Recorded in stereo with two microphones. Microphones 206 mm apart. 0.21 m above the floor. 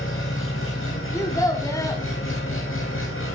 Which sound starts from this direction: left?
An engine running, at 0.0 s.